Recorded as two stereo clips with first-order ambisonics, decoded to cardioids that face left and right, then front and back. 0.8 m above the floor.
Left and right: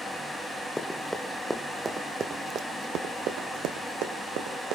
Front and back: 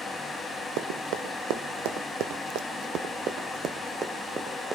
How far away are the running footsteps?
About 2 m.